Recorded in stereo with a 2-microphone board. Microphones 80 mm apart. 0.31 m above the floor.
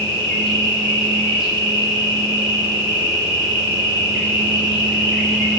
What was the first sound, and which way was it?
An insect, 5° right (ahead or behind).